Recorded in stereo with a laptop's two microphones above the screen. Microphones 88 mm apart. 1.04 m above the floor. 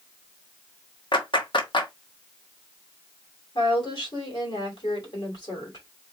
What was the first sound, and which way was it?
A clap, 60° left (ahead or behind).